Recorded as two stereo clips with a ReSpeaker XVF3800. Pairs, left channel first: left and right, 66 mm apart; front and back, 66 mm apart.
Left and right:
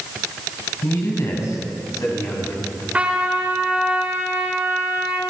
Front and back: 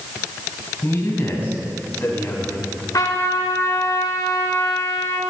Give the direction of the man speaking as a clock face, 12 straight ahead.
10 o'clock.